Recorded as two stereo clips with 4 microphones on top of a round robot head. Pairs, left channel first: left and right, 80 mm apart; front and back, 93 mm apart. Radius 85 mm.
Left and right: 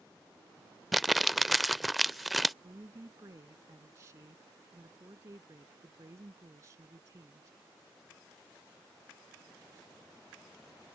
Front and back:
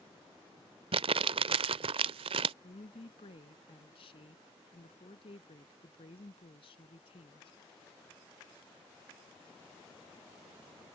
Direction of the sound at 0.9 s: Straight behind.